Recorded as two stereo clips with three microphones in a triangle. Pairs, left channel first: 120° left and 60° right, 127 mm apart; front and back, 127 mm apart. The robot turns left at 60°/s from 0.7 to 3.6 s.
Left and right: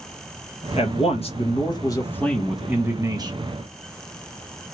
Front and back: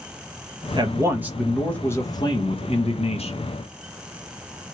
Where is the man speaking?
135° left, 1.1 m; by 3.4 s 25° right, 1.1 m.